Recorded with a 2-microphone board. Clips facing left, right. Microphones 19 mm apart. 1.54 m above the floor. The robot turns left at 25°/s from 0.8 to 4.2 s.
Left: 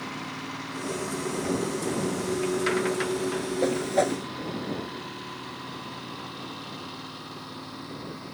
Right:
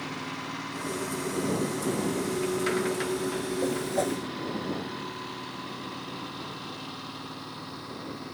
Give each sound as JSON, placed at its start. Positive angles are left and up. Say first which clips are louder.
{"t": 3.6, "sound": "a whoosh", "louder": "left 5 dB", "side_deg": 35}